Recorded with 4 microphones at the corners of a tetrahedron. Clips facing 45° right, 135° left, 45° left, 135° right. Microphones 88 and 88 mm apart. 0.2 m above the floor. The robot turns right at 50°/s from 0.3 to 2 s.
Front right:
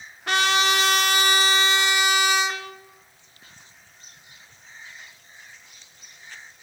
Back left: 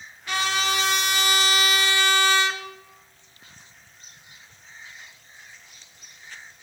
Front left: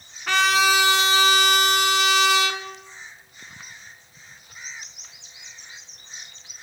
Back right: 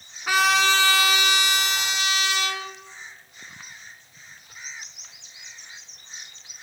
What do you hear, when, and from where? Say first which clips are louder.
0.3 s a trumpet: front right 4 dB, front left 1 dB; 55° right, 0.5 m; by 2.6 s 30° left, 0.5 m